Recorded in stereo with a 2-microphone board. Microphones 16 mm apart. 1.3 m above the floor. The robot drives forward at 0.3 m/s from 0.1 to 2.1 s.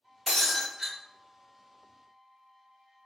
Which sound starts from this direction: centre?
Breaking glass, at 0.3 s.